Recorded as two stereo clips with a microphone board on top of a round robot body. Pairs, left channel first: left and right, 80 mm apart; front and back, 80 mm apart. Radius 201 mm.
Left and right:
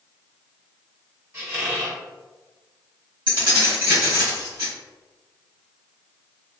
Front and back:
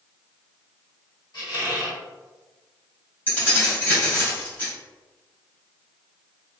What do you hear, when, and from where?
1.3 s a squeak: 30° right, 1.4 m
3.3 s keys jangling: 65° right, 1.6 m